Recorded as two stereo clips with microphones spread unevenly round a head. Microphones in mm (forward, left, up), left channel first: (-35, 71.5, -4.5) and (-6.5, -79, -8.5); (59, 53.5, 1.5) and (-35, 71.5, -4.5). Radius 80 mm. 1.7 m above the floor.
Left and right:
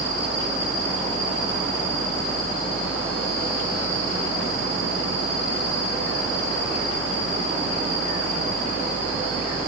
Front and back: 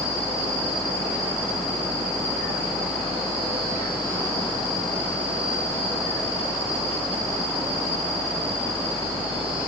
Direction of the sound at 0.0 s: 160° right.